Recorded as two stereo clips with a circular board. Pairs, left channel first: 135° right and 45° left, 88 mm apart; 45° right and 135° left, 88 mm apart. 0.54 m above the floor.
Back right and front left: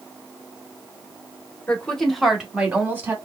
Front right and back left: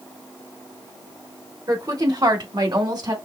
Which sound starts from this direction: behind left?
A woman speaking, at 1.7 s.